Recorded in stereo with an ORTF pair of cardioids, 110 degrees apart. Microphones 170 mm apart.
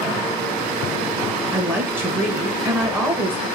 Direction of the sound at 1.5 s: 15° right.